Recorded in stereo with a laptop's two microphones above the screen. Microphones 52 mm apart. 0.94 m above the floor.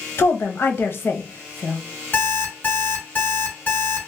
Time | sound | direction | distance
0.2 | a woman speaking | 45° left (ahead or behind) | 0.7 m
2.1 | an alarm clock | 35° left (ahead or behind) | 1.5 m